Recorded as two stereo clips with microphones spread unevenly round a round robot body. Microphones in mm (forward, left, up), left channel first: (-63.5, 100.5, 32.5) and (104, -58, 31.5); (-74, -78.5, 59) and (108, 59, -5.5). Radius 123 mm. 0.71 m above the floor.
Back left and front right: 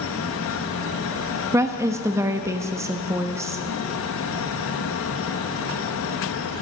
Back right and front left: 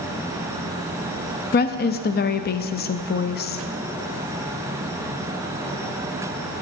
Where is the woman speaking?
110° right, 0.6 m.